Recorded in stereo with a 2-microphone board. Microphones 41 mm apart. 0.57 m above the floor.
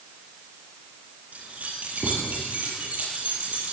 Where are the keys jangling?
40° right (ahead or behind), 10 m; by 3.7 s 35° right (ahead or behind), 11.5 m.